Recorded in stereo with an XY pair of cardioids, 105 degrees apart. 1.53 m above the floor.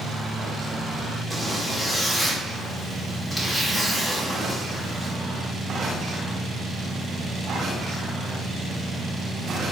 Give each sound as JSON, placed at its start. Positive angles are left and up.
{"t": 1.3, "sound": "a zipper", "azimuth_deg": 10, "distance_m": 1.0}